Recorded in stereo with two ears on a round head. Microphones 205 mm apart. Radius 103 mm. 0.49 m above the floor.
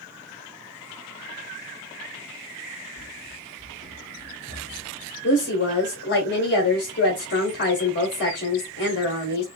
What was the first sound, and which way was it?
Running footsteps, 60° left (ahead or behind).